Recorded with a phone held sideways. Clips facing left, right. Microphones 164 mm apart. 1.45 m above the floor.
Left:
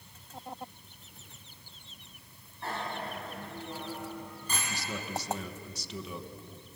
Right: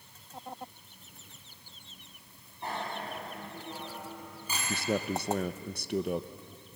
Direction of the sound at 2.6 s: 15° right (ahead or behind).